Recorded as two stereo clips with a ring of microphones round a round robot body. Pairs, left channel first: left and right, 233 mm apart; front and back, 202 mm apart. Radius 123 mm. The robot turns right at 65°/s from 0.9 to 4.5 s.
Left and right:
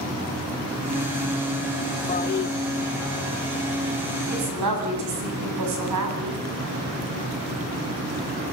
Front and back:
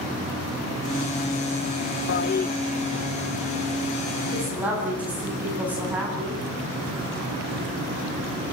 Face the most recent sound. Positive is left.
turn(degrees=-95)